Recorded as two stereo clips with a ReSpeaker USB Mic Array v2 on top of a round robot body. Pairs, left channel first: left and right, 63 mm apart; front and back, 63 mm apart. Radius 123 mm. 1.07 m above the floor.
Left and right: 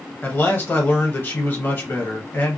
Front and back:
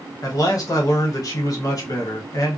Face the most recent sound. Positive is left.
turn(degrees=30)